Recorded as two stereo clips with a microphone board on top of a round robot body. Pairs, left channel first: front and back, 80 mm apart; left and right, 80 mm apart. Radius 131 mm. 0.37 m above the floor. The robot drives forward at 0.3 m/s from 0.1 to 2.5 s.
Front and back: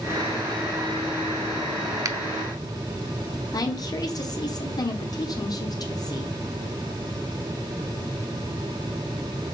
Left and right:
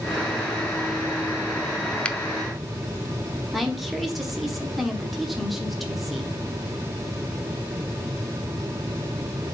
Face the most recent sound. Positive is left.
turn(degrees=0)